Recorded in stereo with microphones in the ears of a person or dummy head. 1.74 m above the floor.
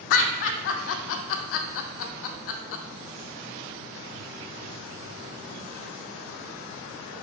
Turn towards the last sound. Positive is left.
turn(degrees=75)  # may be behind; listen again after turning